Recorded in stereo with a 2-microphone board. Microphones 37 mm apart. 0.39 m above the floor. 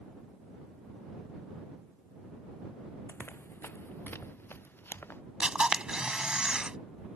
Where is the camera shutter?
25° right (ahead or behind).